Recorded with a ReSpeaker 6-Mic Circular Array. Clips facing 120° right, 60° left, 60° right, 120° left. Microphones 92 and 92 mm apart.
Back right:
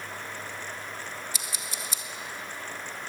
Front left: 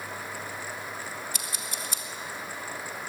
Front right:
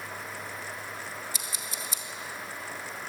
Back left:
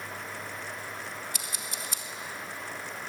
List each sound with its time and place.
1.3 s scissors: 95° left, 1.8 m